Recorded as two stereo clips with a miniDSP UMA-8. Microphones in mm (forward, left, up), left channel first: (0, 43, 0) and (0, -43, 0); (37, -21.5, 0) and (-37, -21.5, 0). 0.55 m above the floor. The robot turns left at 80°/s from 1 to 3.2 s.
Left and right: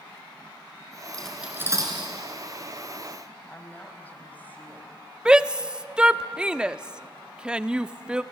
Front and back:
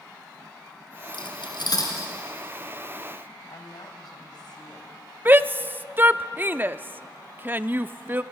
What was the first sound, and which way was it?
Cutlery clinking, 15° left.